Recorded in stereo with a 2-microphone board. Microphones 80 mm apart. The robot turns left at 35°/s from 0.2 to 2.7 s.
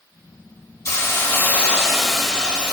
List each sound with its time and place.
0.8 s a hiss: 45° left, 1.0 m; by 2.7 s 20° right, 1.0 m